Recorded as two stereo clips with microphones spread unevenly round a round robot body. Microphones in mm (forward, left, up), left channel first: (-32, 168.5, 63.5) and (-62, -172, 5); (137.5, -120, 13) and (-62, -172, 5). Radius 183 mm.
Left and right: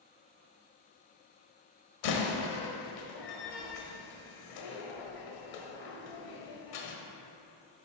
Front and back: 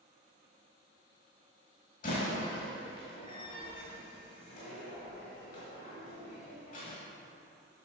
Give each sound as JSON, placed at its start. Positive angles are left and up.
{"t": 2.0, "sound": "a door slam", "azimuth_deg": 75, "distance_m": 1.5}